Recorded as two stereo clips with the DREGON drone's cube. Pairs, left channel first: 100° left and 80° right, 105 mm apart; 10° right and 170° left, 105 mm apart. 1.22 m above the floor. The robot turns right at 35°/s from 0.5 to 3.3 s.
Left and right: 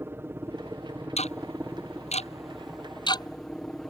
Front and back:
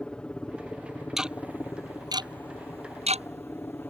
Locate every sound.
0.0 s a helicopter: 75° right; by 3.9 s 25° left
1.2 s ticking: 80° left; by 3.9 s 155° left